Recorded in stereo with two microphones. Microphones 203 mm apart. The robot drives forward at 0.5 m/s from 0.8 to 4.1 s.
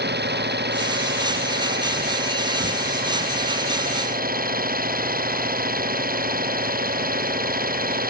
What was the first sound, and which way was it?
An engine running, 55° right (ahead or behind).